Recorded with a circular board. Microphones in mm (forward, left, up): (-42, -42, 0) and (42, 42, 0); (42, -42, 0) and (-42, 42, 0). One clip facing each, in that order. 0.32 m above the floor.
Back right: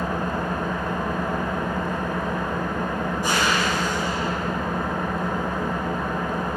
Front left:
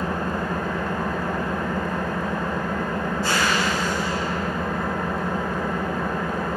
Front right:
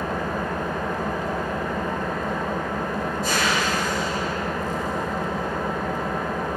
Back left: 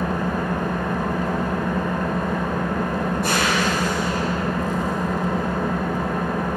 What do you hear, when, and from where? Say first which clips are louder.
0.0 s an engine running: even, back left 3 dB; 150° left, 1.5 m